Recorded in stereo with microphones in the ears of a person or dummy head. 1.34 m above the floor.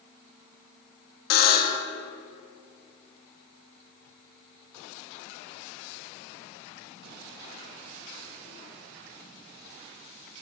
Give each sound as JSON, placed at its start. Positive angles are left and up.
{"t": 1.3, "sound": "a buzzer", "side_deg": 50, "distance_m": 0.7}